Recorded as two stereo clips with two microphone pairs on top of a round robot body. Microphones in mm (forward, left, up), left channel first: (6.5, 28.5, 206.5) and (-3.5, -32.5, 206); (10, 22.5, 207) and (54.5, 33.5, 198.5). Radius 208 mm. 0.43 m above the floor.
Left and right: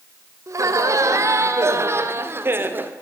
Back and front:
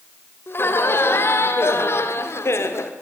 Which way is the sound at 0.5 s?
130° right.